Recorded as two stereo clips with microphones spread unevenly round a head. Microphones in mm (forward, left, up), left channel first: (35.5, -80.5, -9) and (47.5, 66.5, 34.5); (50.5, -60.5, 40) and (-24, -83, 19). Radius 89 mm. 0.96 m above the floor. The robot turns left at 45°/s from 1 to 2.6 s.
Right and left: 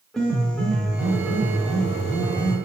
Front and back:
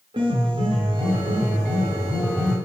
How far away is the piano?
About 0.7 m.